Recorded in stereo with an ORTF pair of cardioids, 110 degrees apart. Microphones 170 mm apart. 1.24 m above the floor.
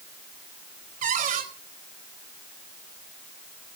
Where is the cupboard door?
55° right, 4.5 m.